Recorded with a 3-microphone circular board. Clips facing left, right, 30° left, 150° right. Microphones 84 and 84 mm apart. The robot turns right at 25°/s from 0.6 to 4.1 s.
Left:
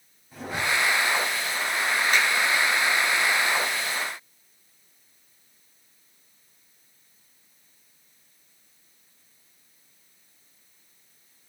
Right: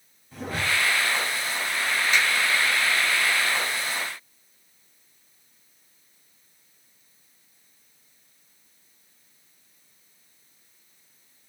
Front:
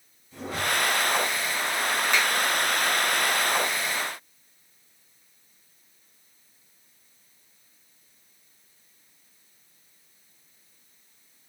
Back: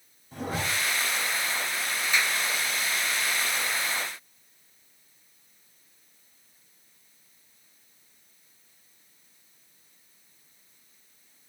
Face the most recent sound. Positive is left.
turn(degrees=100)